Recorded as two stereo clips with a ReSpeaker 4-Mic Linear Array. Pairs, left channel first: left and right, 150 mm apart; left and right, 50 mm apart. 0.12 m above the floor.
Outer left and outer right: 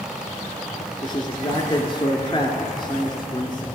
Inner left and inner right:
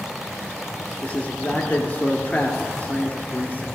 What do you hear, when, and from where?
1.0 s a man speaking: 35° left (ahead or behind), 1.3 m